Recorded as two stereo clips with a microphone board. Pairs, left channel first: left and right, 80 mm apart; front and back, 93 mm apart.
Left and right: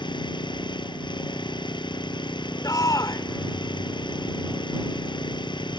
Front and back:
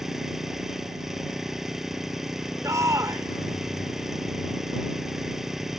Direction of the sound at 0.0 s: 95° left.